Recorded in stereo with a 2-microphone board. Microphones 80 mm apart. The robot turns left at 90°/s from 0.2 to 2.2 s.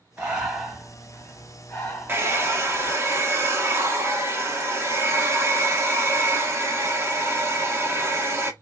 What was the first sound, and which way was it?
Breathing, 15° right (ahead or behind).